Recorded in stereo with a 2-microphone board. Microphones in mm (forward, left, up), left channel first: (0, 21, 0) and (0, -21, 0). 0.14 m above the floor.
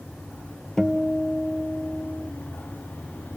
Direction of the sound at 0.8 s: 15° left (ahead or behind).